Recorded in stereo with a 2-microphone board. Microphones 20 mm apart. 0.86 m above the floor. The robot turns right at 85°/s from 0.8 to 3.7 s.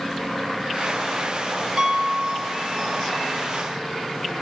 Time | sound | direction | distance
1.8 | a piano | 145° right | 1.3 m